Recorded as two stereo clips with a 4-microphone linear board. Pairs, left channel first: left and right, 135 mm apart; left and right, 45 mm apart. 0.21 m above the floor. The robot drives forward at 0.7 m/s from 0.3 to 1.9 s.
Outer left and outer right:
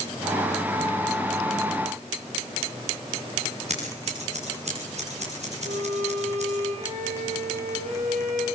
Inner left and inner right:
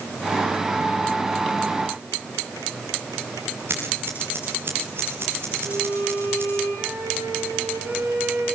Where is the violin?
65° right (ahead or behind), 9 m.